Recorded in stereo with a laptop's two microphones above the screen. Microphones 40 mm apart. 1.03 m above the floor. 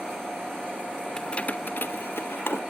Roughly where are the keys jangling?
Centre.